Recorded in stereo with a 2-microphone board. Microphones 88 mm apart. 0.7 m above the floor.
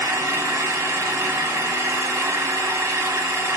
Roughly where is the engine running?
Right.